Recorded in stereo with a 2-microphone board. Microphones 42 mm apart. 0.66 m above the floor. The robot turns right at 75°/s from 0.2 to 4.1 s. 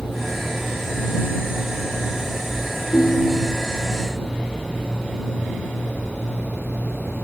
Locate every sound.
2.9 s a ringtone: 135° left; by 3.7 s 165° right